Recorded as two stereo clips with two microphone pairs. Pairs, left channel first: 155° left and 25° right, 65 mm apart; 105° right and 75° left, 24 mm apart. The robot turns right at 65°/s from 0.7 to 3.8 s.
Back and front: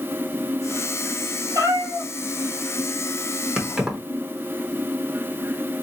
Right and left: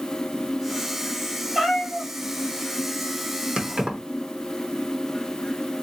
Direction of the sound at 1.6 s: 10° right.